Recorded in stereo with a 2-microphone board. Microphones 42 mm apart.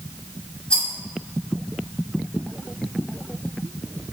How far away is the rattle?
About 0.8 m.